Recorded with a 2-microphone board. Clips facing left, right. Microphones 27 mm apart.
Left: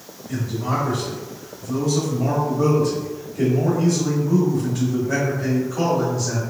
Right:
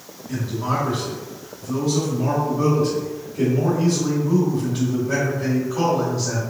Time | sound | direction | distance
0.3 | a man speaking | 60° right (ahead or behind) | 2.0 m